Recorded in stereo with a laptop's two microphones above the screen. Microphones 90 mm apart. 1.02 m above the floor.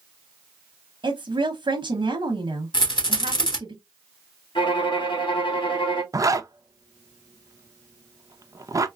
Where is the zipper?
40° right (ahead or behind), 0.6 m.